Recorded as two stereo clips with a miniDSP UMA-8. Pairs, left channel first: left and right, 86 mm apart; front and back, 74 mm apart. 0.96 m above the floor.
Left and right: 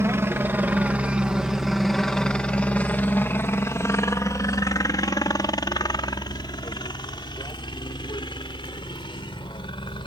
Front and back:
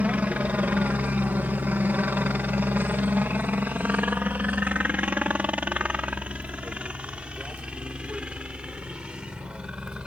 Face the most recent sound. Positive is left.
turn(degrees=100)